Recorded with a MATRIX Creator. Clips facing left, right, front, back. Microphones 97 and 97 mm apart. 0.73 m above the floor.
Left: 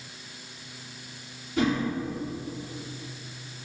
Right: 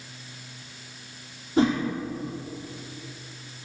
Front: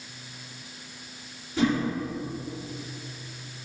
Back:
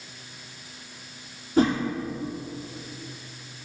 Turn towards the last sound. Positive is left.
turn(degrees=-140)